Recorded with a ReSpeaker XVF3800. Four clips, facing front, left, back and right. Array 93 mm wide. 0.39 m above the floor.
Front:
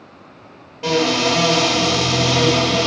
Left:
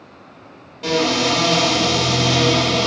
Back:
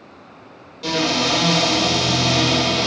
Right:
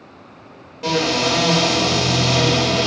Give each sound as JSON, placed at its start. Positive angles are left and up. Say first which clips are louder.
{"t": 0.8, "sound": "a cupboard door", "louder": "left 1 dB, front 3 dB", "azimuth_deg": -25, "distance_m": 1.4}